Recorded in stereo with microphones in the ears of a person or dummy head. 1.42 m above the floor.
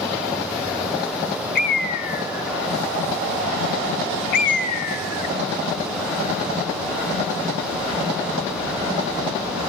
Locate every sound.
1.6 s a bird: 50° left (ahead or behind), 1.6 m